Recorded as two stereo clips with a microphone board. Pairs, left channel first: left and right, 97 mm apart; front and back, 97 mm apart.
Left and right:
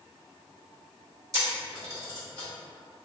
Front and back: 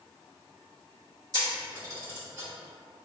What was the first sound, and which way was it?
A camera shutter, 135° right.